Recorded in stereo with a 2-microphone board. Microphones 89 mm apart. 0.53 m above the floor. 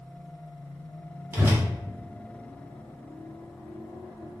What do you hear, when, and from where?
1.3 s a whoosh: 35° right (ahead or behind), 1.5 m